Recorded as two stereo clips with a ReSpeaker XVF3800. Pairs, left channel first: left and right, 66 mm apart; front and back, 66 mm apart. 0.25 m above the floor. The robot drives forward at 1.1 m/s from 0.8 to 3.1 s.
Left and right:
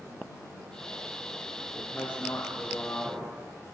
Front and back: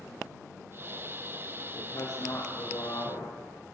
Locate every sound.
1.7 s a woman speaking: 15° left, 8.5 m; by 3.3 s 20° left, 7 m